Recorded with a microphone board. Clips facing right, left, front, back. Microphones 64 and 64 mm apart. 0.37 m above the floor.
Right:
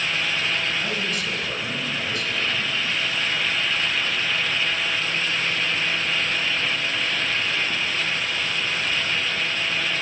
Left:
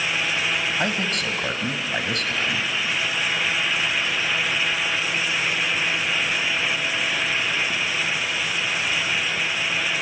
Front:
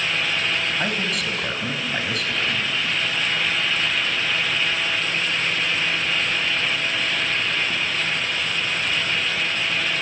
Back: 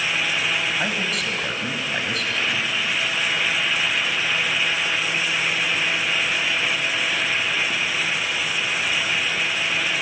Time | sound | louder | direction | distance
0.8 | a man speaking | left 2 dB, even | 90° left | 2.5 m